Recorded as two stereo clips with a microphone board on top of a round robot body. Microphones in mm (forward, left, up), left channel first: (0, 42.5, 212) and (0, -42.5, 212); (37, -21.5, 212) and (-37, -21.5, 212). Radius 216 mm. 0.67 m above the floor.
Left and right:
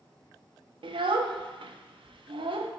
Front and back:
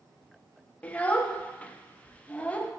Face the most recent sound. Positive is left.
turn(degrees=-70)